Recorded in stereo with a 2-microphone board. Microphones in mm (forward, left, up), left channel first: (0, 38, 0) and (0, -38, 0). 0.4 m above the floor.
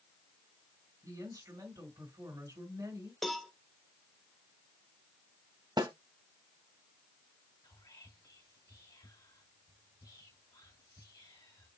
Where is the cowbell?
Centre (ahead or behind), 0.8 m.